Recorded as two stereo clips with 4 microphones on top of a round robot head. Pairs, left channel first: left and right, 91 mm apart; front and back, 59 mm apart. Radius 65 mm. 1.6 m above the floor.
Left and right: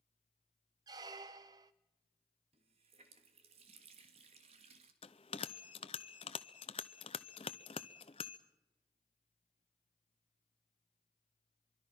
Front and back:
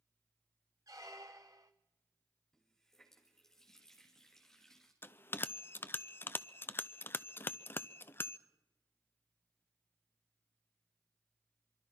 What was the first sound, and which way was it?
A squeak, 120° right.